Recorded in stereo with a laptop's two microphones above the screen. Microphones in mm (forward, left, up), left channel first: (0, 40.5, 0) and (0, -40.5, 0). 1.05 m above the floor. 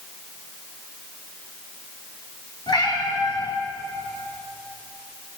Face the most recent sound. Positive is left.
turn(degrees=65)  # may be behind; listen again after turning